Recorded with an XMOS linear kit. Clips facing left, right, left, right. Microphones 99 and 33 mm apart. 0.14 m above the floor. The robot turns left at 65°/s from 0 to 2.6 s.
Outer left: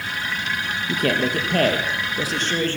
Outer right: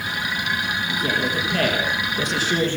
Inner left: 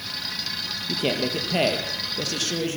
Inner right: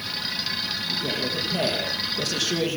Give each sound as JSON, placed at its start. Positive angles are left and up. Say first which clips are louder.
{"t": 0.9, "sound": "a man speaking", "louder": "outer left 4 dB, inner left 5 dB", "azimuth_deg": 95, "distance_m": 3.5}